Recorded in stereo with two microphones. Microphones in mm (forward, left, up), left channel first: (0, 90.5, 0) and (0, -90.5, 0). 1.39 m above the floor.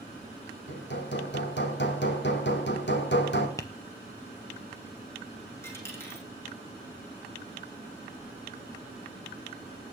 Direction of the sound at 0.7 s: 75° left (ahead or behind).